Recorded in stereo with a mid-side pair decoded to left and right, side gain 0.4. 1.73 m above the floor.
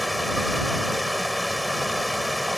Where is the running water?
5° left.